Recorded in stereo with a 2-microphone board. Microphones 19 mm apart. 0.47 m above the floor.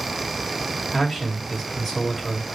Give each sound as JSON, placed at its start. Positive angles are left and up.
{"t": 0.9, "sound": "a man speaking", "side_deg": -15, "distance_m": 3.0}